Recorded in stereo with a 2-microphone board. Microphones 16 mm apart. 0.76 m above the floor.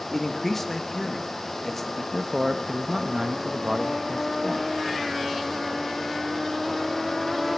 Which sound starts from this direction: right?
A man speaking, at 2.1 s.